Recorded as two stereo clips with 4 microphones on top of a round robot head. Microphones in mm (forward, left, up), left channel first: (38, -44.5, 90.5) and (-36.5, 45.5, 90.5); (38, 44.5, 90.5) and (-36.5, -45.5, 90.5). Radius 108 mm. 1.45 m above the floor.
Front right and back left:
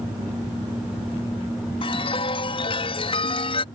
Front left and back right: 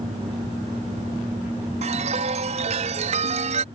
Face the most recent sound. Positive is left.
turn(degrees=-95)